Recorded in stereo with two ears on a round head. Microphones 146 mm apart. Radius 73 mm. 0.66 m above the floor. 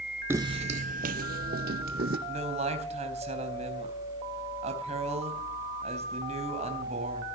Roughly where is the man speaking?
Right.